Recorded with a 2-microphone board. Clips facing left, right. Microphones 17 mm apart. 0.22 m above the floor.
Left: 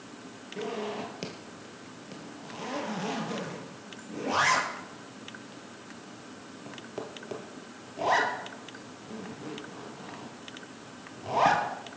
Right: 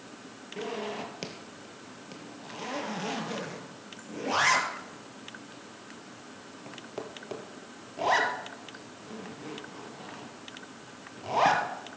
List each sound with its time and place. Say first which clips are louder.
0.6 s a zipper: left 1 dB; 10° right (ahead or behind), 2.5 m